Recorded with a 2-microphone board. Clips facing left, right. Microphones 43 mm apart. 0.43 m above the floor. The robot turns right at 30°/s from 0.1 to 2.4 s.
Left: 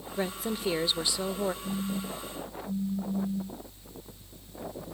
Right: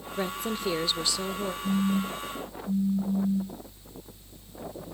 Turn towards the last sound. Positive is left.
turn(degrees=-20)  # may be behind; listen again after turning